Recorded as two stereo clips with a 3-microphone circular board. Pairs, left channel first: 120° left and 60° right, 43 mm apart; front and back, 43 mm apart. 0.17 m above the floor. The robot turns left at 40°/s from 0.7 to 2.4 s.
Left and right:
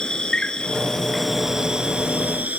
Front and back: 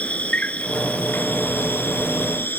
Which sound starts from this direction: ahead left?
An insect, at 0.0 s.